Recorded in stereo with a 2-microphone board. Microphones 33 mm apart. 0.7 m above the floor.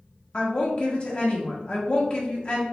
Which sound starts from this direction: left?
A woman speaking, at 0.3 s.